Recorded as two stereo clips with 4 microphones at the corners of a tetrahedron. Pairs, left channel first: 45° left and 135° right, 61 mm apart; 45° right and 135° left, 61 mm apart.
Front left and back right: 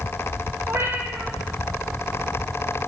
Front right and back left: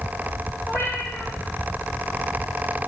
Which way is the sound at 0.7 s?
85° right.